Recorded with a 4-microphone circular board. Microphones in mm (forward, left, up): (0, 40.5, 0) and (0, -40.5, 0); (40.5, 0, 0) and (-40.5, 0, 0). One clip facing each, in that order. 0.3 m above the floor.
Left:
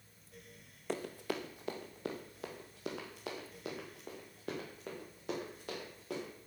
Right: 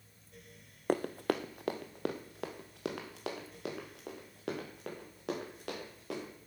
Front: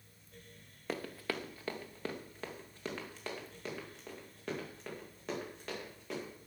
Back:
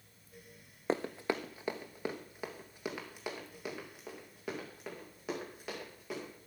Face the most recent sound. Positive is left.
turn(degrees=-95)